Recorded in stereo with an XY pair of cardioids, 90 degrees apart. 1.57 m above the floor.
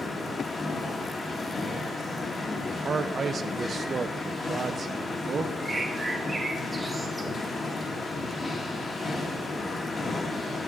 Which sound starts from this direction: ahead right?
A man speaking, at 2.7 s.